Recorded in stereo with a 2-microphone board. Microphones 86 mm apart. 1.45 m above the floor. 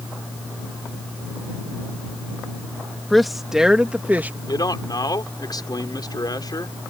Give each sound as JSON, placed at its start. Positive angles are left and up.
{"t": 3.1, "sound": "a woman speaking", "side_deg": 0}
{"t": 4.5, "sound": "a man speaking", "side_deg": 50}